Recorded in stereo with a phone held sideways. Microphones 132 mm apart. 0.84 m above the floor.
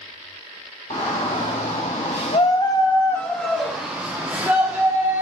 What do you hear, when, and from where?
0.9 s a shout: 60° left (ahead or behind), 1.0 m; by 5.2 s 20° right (ahead or behind), 1.6 m